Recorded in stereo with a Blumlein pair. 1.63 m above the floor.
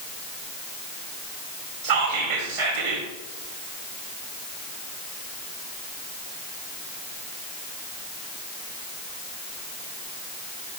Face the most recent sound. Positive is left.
turn(degrees=-50)